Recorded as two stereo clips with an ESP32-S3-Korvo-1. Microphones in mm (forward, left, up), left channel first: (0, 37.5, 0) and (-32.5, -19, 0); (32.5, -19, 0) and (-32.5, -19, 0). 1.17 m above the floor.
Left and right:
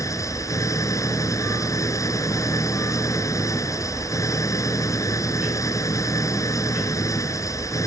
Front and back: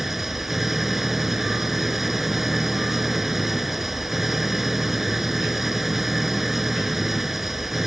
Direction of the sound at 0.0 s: 95° left.